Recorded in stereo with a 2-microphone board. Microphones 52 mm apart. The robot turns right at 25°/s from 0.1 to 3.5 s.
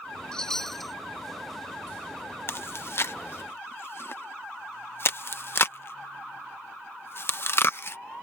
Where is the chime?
15° left (ahead or behind); by 0.9 s centre (ahead or behind).